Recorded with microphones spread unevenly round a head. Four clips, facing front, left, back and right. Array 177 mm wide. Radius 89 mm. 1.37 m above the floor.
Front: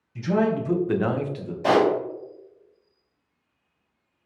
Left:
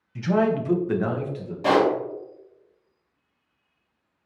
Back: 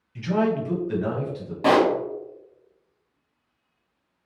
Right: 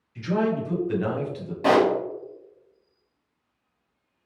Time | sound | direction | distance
0.1 | a man speaking | 85° left | 1.1 m
1.6 | a pop | 160° right | 1.5 m